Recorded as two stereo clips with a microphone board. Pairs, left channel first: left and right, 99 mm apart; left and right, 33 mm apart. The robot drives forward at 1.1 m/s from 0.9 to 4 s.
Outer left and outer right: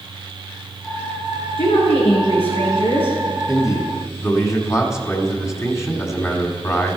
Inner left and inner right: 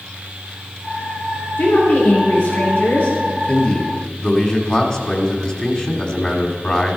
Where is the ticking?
I don't hear ticking.